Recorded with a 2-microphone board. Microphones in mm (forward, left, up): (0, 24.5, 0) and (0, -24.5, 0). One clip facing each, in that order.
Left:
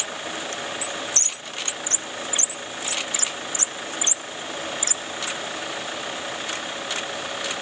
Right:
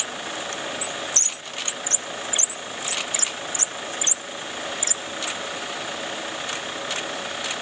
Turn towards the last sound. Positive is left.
No sound to turn to.